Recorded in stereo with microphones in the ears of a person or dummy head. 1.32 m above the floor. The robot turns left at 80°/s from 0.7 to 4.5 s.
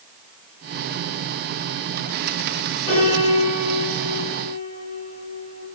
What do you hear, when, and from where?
2.9 s a piano: 150° left, 3 m; by 5.6 s 20° left, 3 m